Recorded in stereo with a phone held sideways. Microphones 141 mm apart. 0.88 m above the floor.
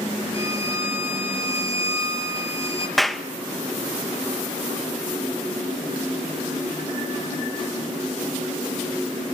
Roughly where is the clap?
Centre.